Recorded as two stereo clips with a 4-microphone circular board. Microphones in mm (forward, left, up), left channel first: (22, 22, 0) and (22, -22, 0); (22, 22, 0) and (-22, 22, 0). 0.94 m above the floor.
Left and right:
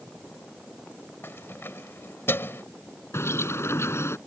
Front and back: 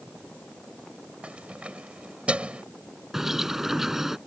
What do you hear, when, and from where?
1.2 s keys jangling: 115° left
3.1 s a bird: 95° left